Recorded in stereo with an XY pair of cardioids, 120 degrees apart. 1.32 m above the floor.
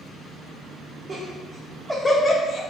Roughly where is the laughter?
Ahead right.